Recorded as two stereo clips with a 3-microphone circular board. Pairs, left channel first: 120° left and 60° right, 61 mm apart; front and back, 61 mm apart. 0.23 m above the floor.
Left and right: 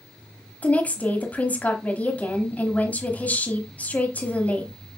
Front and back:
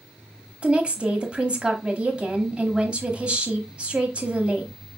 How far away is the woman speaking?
About 1.0 m.